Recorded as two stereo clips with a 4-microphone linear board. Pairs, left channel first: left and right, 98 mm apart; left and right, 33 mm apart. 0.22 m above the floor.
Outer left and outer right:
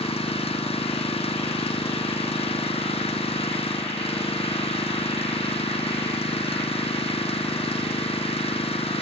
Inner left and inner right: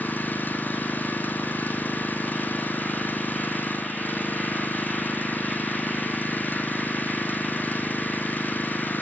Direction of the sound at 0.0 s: 80° left.